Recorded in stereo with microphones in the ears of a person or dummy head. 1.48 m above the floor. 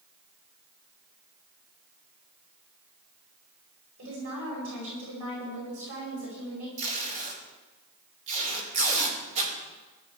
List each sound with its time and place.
4.0 s a woman speaking: 75° right (ahead or behind), 9 m
6.8 s tape being pulled: 35° right (ahead or behind), 5 m